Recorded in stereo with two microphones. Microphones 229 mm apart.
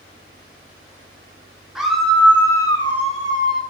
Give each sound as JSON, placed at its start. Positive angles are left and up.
{"t": 1.8, "sound": "a scream", "side_deg": 0, "distance_m": 2.5}